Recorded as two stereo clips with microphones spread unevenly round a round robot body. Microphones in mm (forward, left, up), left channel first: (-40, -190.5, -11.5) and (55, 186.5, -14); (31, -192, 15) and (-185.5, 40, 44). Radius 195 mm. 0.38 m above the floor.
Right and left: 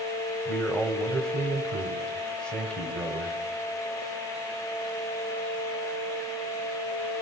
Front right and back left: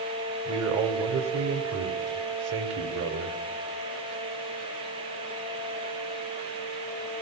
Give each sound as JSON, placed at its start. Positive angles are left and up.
{"t": 0.5, "sound": "a man speaking", "azimuth_deg": 165, "distance_m": 1.5}